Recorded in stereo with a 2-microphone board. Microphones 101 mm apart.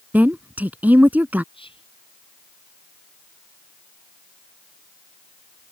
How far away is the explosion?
No explosion in this recording.